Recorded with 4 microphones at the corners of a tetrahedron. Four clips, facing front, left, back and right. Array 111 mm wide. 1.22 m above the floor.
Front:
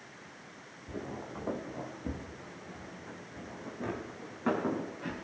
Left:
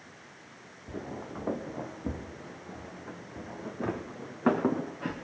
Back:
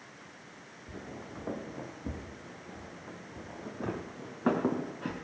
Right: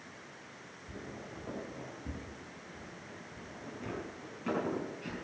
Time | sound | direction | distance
0.9 | footsteps | 60° left | 2.0 m